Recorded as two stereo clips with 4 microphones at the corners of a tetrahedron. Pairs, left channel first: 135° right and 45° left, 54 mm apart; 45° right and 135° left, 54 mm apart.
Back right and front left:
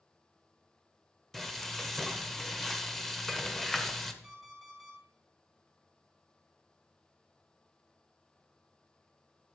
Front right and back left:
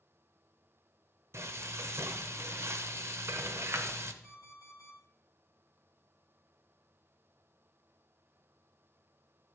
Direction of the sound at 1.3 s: 140° left.